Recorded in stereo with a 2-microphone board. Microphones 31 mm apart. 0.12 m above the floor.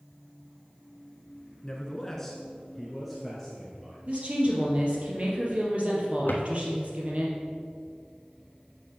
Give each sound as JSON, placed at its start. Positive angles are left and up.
{"t": 1.6, "sound": "a man speaking", "side_deg": 20, "distance_m": 1.3}
{"t": 4.1, "sound": "a woman speaking", "side_deg": -45, "distance_m": 3.0}
{"t": 6.3, "sound": "a drawer", "side_deg": 80, "distance_m": 1.2}